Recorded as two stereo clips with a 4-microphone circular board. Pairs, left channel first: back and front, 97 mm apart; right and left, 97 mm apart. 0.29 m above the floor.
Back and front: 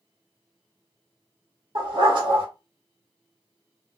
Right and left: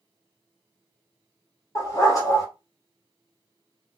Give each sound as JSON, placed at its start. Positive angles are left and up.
{"t": 1.8, "sound": "a dog barking", "azimuth_deg": -35, "distance_m": 2.0}